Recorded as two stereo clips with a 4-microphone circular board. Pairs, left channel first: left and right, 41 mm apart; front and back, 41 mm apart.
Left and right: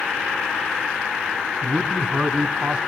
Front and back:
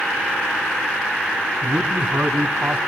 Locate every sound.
1.6 s a man speaking: 155° right, 2.5 m